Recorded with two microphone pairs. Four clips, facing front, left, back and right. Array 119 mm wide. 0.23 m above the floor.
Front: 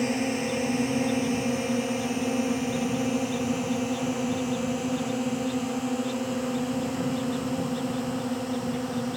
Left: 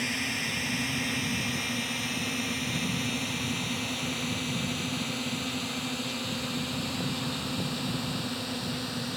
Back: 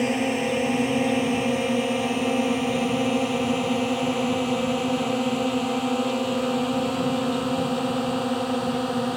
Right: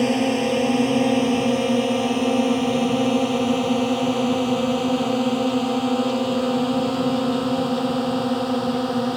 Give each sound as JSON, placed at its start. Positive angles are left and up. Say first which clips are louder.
{"t": 0.0, "sound": "a drone", "louder": "right 15 dB, back 3 dB", "azimuth_deg": -115}